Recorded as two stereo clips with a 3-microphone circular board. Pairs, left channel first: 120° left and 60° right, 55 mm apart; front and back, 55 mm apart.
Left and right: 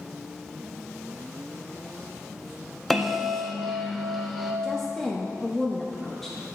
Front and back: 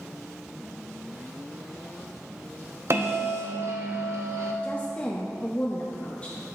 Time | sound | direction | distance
2.9 | a bell | 150° right | 0.9 m
4.6 | a woman speaking | 45° left | 0.7 m